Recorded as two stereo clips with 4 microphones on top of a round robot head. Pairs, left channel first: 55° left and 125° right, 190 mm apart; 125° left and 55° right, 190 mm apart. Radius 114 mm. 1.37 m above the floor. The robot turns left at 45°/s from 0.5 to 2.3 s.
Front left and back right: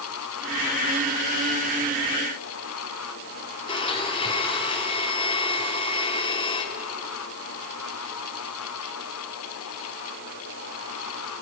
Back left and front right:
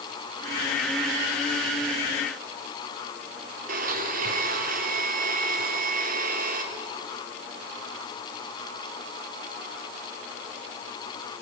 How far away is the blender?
About 2 m.